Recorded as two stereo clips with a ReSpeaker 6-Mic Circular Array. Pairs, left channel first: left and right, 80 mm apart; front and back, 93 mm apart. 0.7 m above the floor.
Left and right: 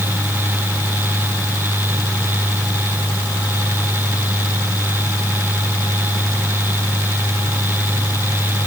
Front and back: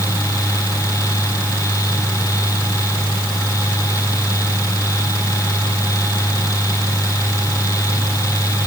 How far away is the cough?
I don't hear a cough.